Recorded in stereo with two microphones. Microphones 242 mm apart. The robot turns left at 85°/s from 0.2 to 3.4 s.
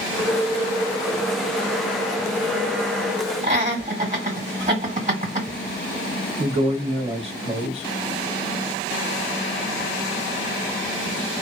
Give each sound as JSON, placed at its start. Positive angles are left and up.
{"t": 3.4, "sound": "laughter", "side_deg": -30, "distance_m": 1.5}
{"t": 6.4, "sound": "a man speaking", "side_deg": -25, "distance_m": 0.9}